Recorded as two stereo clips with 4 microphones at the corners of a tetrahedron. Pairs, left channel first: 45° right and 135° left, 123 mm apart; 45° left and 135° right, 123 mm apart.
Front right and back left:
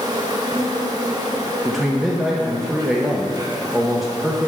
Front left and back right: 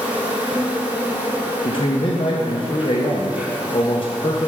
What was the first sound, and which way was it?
An insect, 155° left.